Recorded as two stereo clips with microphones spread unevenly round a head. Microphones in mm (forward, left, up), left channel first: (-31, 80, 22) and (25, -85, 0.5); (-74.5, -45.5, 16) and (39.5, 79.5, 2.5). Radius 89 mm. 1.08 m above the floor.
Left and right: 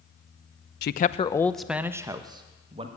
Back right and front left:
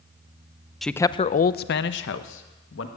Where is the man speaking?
135° left, 0.5 m; by 2.9 s 130° right, 1.4 m.